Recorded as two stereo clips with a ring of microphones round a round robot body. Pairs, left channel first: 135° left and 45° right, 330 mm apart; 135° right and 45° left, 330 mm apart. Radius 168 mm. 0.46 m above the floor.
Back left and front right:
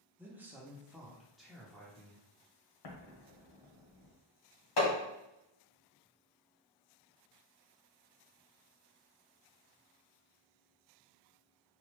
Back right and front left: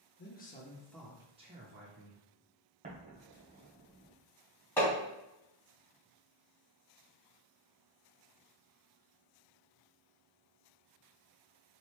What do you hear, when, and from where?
0.2 s a man speaking: 125° right, 0.8 m; by 2.2 s 50° left, 0.9 m
2.8 s an explosion: 115° left, 0.9 m
4.8 s hammering: 140° left, 2.0 m